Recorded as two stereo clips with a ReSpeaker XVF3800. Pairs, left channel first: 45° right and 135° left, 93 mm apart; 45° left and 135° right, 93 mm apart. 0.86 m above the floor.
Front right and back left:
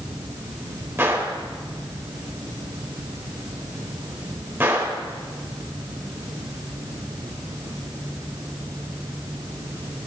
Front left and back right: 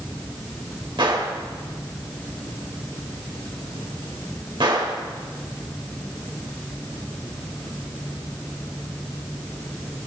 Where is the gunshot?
160° right, 2.5 m.